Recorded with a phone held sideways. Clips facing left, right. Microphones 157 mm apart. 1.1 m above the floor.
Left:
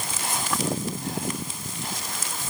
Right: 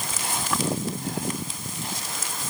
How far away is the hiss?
No hiss in this recording.